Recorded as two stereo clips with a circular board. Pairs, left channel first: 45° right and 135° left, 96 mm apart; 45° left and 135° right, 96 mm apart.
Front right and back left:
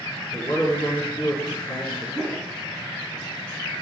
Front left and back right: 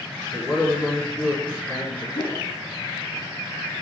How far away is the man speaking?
About 3.5 m.